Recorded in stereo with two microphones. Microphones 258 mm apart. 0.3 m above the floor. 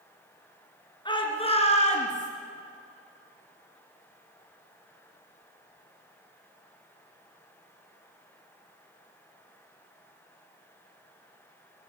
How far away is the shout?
About 4.5 m.